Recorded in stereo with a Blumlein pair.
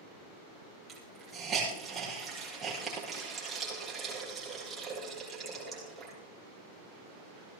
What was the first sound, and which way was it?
A hiss, 15° right.